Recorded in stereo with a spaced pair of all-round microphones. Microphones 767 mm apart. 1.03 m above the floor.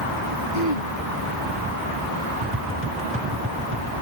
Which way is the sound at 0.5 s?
75° left (ahead or behind).